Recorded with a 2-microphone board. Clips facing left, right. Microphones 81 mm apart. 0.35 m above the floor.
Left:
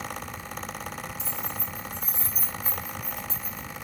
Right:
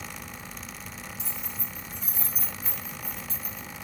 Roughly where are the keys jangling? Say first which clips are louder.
Left 5 dB; centre.